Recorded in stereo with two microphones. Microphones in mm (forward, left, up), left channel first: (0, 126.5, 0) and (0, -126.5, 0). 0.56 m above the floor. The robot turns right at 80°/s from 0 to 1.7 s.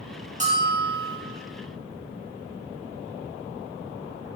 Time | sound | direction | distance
0.4 | a bell | 30° right | 0.8 m